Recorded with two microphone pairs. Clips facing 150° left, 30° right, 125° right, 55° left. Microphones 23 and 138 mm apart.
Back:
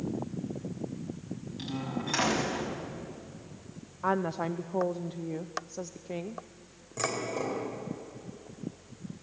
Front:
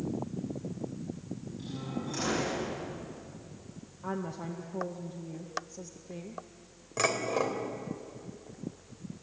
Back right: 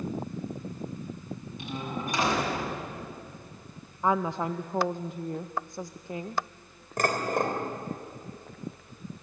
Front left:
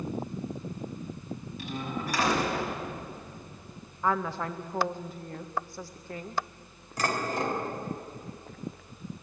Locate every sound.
1.6 s a door slam: 165° left, 5.5 m
4.0 s a woman speaking: 170° left, 0.6 m
7.0 s dishes clattering: 90° right, 3.5 m